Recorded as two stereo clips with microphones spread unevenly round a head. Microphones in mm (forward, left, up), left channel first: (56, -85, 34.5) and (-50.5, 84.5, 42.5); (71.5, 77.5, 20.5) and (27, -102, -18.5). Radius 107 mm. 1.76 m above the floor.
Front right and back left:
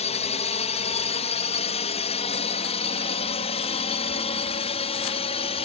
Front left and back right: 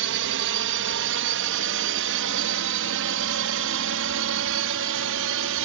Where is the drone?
115° right; by 5.7 s 120° right.